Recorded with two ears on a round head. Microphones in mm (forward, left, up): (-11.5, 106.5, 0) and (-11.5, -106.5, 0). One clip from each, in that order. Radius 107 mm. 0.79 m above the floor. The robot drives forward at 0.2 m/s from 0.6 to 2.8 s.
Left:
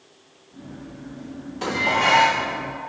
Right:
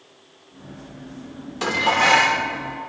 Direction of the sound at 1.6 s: 45° right (ahead or behind).